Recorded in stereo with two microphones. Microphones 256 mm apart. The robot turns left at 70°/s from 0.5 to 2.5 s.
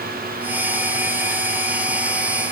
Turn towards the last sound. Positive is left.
No sound to turn to.